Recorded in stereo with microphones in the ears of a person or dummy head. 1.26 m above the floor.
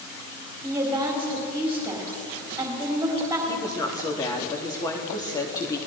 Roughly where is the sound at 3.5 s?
Centre.